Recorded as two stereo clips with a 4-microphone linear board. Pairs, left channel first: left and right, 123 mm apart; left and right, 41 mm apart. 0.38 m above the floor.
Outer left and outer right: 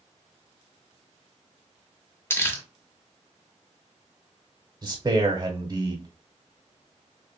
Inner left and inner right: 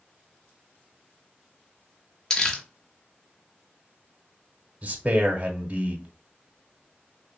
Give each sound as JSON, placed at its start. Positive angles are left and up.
{"t": 2.3, "sound": "crumpling", "side_deg": 20, "distance_m": 0.6}
{"t": 4.8, "sound": "a man speaking", "side_deg": -30, "distance_m": 0.8}